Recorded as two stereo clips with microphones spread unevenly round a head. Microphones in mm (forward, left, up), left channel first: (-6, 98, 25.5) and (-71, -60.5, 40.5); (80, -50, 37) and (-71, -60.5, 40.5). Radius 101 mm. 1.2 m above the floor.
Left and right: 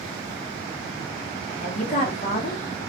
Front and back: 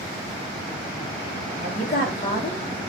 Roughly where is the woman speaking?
Ahead left.